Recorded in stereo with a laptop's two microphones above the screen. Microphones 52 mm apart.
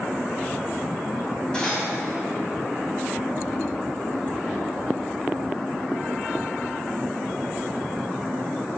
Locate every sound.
1.5 s cutlery clinking: 20° left (ahead or behind), 1.1 m